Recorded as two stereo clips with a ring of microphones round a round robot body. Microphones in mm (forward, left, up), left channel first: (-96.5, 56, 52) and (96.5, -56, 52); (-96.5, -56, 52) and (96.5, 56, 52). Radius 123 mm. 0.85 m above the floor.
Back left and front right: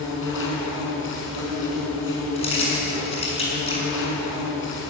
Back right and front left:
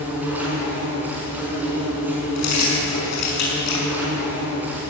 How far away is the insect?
About 6.5 m.